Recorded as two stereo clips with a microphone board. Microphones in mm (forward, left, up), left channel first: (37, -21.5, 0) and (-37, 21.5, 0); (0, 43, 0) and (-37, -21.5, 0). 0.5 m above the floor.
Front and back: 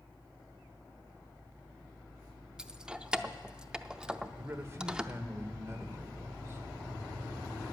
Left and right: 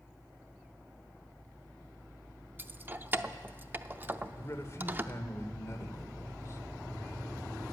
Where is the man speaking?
100° left, 1.4 m.